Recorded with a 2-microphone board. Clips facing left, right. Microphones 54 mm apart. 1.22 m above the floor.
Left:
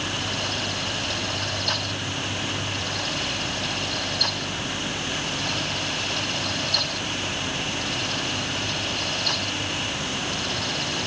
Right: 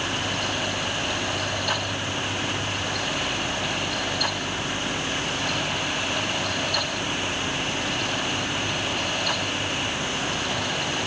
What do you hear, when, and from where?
Only background noise.